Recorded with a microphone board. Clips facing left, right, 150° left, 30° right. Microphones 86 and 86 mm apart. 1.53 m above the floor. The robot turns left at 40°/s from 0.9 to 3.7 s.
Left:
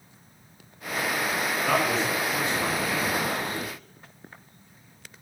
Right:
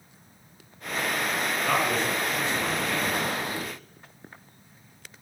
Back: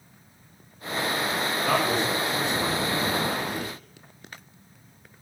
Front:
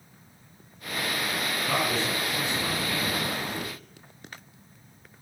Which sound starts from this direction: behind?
A man speaking, at 1.6 s.